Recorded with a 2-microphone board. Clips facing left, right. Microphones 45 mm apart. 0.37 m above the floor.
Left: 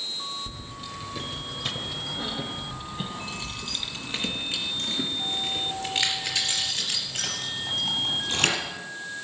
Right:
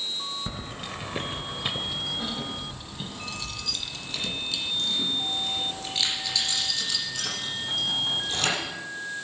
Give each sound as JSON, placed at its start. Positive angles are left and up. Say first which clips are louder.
{"t": 0.5, "sound": "keys jangling", "louder": "right 3 dB", "side_deg": -60, "distance_m": 1.0}